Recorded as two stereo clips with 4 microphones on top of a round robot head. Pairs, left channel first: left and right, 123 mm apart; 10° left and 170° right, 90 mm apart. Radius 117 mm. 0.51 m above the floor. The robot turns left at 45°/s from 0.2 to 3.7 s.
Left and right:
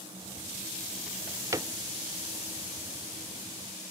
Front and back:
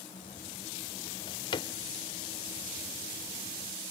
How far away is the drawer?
About 1.0 m.